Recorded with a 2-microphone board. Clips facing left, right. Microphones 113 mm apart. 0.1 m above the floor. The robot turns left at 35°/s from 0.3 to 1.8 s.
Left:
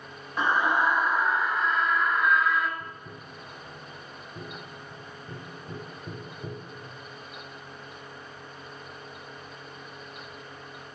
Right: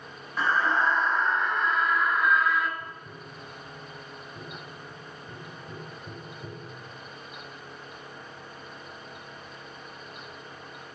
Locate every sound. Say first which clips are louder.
0.4 s a scream: left 1 dB; 15° left (ahead or behind), 1.2 m; by 2.7 s centre (ahead or behind), 1.2 m
2.8 s tapping: even; 15° left (ahead or behind), 2 m